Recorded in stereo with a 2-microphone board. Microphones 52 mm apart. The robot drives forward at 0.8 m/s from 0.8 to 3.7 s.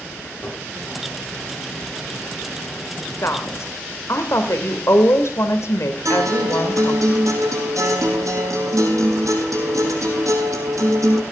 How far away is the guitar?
About 5.5 m.